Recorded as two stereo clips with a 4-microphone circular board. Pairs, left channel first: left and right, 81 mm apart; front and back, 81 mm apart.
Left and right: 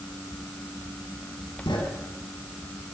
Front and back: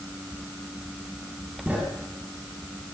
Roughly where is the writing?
Left.